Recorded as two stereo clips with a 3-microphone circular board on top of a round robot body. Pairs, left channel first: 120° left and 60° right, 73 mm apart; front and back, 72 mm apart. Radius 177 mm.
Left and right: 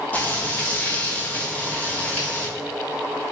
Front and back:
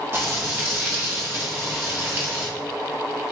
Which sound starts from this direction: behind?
Frying, at 0.1 s.